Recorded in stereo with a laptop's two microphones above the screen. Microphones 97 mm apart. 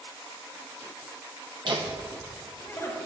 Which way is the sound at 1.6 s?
55° right (ahead or behind).